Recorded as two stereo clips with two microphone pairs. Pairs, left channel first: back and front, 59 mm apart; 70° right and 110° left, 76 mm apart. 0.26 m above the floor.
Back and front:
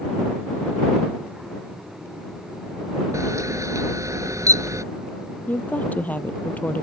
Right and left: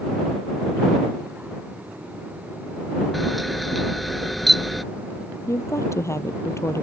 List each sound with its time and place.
3.1 s a camera shutter: 20° left
5.5 s a woman speaking: 120° right